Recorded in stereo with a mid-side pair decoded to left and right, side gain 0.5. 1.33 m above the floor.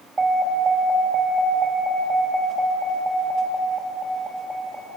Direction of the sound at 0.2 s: 25° right.